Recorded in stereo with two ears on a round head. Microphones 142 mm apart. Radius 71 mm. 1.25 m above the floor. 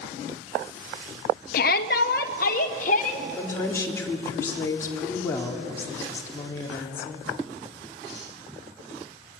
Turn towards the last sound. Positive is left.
turn(degrees=15)  # may be behind; listen again after turning